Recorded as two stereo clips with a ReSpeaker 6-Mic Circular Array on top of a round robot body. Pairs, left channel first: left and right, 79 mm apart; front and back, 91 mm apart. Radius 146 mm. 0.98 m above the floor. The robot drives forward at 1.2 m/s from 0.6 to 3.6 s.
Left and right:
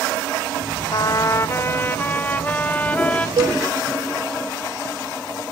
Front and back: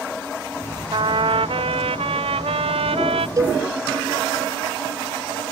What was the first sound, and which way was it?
A trumpet, 140° left.